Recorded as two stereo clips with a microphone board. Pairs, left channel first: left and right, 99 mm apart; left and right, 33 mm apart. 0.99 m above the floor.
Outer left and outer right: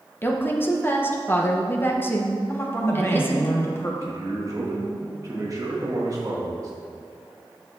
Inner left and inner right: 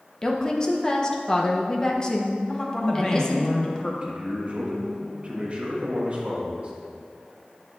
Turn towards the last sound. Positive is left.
turn(degrees=-40)  # may be behind; listen again after turning